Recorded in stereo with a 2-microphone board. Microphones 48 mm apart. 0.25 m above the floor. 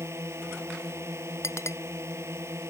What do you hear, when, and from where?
0.0 s a drone: 75° right (ahead or behind)
1.4 s a clink: 80° left